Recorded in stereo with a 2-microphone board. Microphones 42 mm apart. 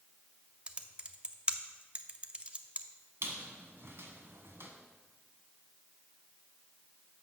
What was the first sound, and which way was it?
Typing on a keyboard, 25° right (ahead or behind).